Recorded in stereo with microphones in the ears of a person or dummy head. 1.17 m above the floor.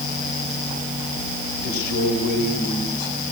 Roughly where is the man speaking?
Left.